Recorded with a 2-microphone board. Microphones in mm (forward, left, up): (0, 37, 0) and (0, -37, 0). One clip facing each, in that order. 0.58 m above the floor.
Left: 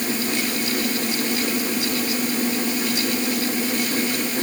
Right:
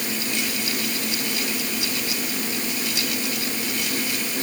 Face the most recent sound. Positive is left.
No sound to turn to.